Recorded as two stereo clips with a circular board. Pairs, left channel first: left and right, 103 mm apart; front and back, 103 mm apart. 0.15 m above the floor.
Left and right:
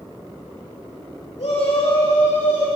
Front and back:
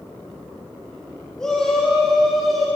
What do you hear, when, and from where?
1.4 s a shout: 80° left, 5 m; by 2.7 s 90° left, 6.5 m